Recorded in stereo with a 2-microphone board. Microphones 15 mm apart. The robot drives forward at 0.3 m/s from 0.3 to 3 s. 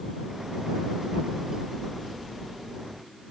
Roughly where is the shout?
No shout in this recording.